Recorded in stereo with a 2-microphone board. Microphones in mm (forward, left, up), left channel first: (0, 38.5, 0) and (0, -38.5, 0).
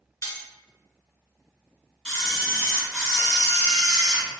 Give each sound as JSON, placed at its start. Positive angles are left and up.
{"t": 0.2, "sound": "cutlery clinking", "side_deg": 35, "distance_m": 1.4}
{"t": 2.0, "sound": "a camera shutter", "side_deg": 5, "distance_m": 0.9}